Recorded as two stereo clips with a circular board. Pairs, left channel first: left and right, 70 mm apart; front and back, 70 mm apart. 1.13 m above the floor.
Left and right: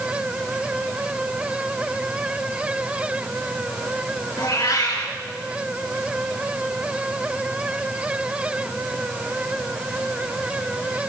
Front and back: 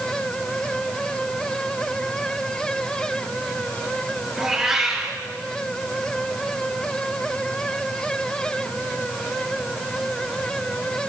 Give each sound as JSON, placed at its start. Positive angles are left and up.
{"t": 4.4, "sound": "a cat meowing", "azimuth_deg": 95, "distance_m": 4.5}